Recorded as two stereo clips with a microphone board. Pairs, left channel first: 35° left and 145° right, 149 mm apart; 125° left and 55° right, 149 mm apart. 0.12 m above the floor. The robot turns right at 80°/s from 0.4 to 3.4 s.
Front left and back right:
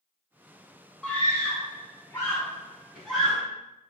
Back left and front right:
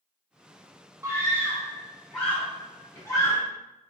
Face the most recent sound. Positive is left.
turn(degrees=150)